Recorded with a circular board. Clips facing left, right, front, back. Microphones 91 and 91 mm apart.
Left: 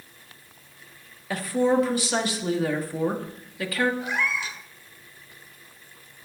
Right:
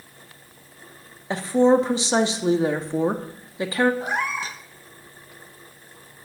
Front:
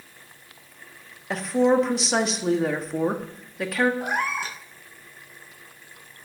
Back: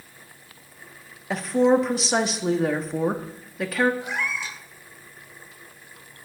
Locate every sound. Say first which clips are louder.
1.3 s a woman speaking: right 5 dB, back 1 dB; 90° right, 1.0 m
4.0 s a cat meowing: right 2 dB, front 3 dB; 40° right, 0.9 m